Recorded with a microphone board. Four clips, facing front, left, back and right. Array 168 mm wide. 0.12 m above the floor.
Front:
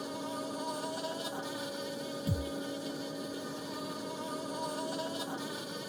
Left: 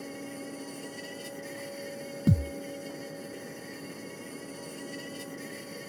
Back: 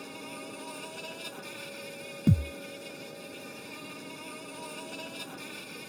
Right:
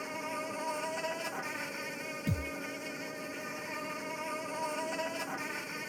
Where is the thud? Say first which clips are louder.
Left 10 dB, back 11 dB; 140° left.